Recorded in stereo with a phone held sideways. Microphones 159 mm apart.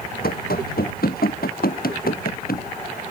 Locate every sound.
0.2 s running footsteps: 80° left; by 2.6 s 75° left (ahead or behind)